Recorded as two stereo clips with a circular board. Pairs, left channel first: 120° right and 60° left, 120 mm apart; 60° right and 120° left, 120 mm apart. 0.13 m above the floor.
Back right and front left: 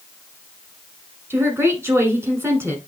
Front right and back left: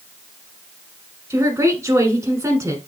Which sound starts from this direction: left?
A woman speaking, at 1.3 s.